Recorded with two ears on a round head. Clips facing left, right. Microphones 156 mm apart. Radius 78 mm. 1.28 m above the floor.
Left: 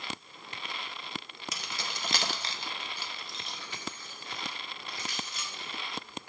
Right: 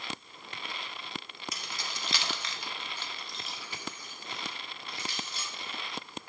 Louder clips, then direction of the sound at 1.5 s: Left 4 dB; 60° left (ahead or behind).